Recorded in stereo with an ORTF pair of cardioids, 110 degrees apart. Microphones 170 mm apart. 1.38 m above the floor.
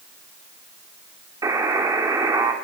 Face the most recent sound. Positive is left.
turn(degrees=-20)